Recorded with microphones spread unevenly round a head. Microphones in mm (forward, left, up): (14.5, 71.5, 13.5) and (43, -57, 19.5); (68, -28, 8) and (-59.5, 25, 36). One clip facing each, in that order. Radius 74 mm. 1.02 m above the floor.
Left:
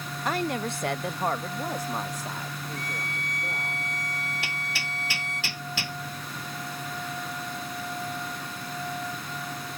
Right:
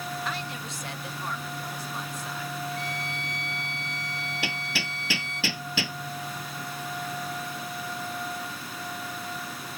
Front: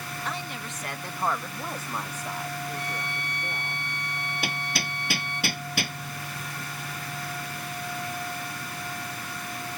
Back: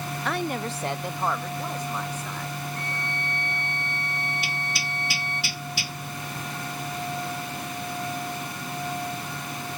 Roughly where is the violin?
Ahead left.